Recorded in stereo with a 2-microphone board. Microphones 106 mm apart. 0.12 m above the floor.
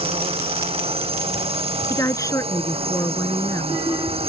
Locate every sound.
0.0 s a drone: 65° right (ahead or behind)
1.9 s a woman speaking: 30° left (ahead or behind)